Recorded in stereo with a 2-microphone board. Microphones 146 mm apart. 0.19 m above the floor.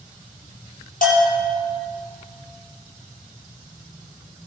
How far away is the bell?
About 3.5 m.